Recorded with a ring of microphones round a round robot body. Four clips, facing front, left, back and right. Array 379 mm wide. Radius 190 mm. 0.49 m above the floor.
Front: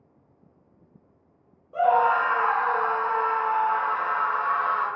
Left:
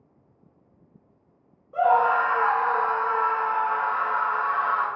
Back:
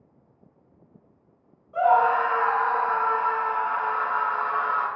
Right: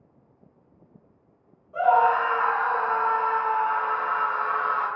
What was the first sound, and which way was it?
A scream, 35° left.